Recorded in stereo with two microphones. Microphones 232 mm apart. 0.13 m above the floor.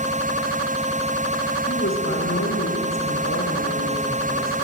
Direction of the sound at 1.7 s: 65° left (ahead or behind).